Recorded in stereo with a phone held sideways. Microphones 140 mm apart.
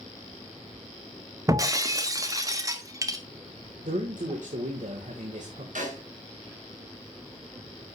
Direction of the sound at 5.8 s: 75° right (ahead or behind).